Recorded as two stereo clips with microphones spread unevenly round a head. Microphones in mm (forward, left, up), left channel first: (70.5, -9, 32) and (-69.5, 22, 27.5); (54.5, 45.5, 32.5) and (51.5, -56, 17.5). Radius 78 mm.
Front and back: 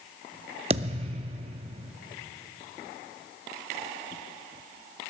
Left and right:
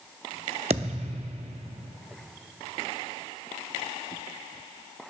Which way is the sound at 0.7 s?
145° right.